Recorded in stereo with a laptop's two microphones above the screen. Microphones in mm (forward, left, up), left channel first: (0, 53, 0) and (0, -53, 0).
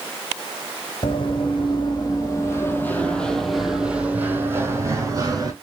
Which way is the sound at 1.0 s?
55° left (ahead or behind).